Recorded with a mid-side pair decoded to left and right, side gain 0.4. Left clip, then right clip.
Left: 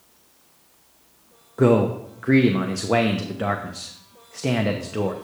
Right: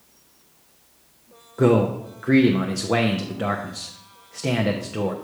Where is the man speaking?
10° left, 0.8 m.